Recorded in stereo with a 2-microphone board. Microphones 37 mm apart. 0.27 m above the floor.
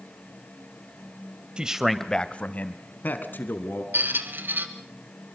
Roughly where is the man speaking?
Right.